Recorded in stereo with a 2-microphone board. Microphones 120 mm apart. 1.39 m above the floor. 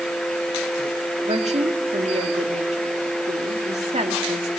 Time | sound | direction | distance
1.2 | a woman speaking | 70° right (ahead or behind) | 2.5 m